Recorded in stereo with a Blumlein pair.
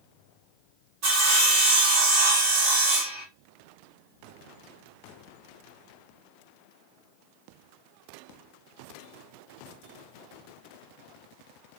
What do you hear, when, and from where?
1.0 s sawing: 45° right, 2.5 m